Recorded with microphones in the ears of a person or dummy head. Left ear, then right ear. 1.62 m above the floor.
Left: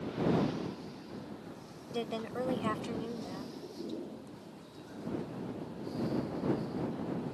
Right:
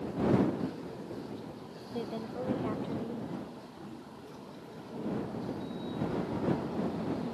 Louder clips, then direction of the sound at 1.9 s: Left 2 dB; 70° left (ahead or behind).